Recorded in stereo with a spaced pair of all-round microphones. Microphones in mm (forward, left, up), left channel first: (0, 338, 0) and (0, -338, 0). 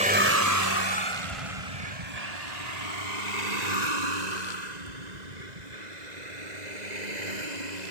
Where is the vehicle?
10° right (ahead or behind); by 7.9 s 85° right.